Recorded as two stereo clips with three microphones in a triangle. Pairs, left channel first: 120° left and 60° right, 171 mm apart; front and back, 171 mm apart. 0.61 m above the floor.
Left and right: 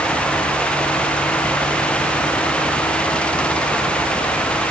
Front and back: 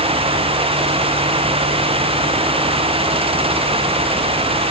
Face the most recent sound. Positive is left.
No sound to turn to.